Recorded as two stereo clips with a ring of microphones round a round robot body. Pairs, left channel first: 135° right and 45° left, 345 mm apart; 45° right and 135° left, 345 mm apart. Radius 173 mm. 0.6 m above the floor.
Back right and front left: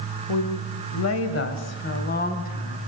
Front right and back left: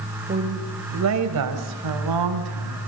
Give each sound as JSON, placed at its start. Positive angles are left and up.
{"t": 0.3, "sound": "a woman speaking", "azimuth_deg": -160, "distance_m": 2.0}